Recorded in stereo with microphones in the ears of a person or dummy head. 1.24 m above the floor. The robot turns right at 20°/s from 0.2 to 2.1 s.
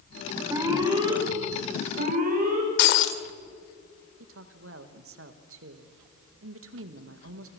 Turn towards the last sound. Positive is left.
turn(degrees=-75)  # may be behind; listen again after turning